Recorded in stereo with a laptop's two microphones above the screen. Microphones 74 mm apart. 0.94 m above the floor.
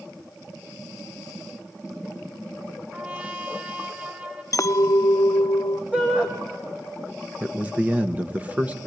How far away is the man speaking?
About 1.1 m.